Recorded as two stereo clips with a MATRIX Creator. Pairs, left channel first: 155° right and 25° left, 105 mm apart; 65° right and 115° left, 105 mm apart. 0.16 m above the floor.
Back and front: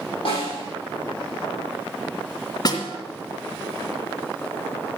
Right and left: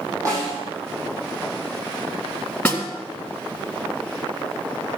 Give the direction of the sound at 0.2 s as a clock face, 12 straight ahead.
6 o'clock.